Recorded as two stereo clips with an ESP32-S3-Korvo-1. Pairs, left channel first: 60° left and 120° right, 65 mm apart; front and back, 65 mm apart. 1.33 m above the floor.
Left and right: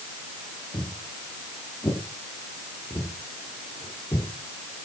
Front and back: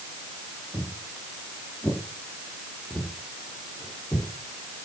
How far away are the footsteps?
About 5 m.